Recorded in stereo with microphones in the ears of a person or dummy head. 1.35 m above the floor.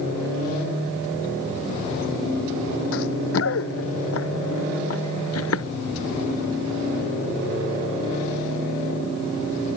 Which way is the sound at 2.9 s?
75° left (ahead or behind).